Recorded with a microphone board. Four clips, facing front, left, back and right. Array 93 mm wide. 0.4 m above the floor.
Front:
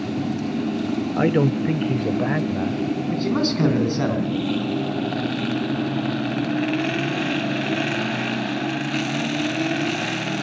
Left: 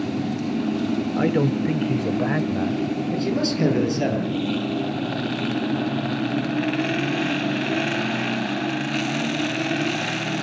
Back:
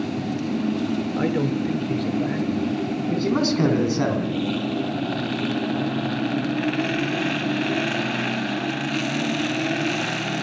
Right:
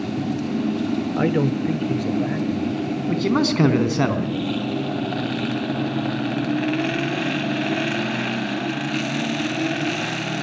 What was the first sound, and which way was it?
A man speaking, 30° right.